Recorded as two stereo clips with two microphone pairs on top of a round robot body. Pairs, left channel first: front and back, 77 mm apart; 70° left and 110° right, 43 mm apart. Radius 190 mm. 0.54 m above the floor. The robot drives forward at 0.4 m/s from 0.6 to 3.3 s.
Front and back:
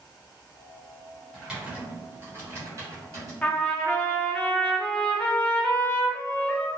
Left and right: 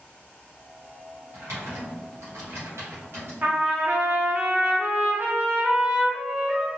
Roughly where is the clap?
No clap in this recording.